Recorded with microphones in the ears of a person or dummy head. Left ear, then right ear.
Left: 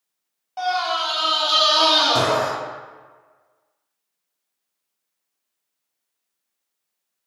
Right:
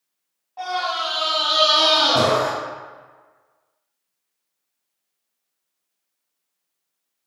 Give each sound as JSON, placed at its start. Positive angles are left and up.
{"t": 0.6, "sound": "a scream", "side_deg": 70, "distance_m": 1.5}